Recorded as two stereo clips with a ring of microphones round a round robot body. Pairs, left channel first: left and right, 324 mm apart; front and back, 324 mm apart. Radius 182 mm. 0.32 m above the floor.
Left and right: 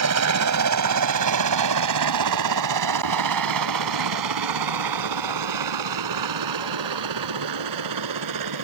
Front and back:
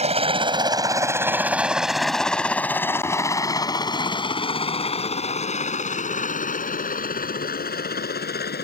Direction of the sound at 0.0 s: 115° right.